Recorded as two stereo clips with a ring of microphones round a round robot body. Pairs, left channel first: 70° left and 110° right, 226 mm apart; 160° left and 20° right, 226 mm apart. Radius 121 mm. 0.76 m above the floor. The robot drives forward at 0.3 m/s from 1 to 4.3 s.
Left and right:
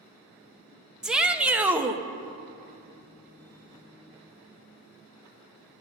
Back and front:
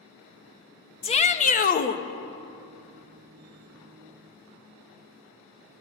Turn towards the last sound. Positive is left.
turn(degrees=175)